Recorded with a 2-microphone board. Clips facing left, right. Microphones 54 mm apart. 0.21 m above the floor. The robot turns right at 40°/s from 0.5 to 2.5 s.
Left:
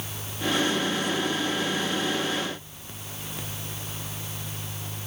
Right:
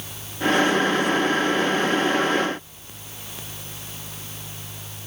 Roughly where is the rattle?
I don't hear a rattle.